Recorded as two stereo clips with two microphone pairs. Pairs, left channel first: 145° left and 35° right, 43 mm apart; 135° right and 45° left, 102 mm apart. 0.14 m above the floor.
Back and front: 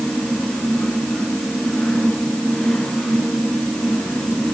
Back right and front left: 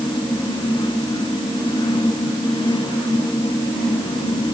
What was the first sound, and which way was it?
Only background noise.